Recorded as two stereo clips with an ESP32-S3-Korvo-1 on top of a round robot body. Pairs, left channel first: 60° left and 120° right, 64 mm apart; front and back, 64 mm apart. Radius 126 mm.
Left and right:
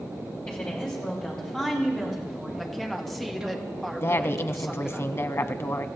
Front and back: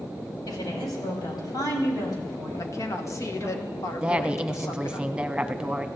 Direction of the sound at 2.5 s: 25° right.